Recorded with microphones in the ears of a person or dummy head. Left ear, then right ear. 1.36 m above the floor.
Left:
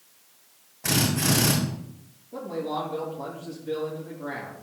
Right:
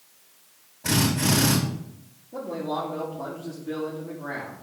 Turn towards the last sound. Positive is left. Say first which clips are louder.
# right 1 dB
turn(degrees=30)  # may be behind; listen again after turning